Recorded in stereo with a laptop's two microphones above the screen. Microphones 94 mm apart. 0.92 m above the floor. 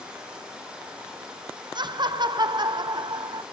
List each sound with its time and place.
0.0 s running water: 15° right (ahead or behind), 4 m
1.8 s laughter: 55° right (ahead or behind), 0.6 m